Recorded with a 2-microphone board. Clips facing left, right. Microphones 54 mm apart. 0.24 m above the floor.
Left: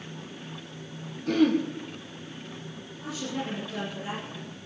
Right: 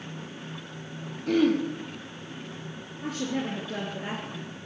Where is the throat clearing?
5° right (ahead or behind), 2.5 m.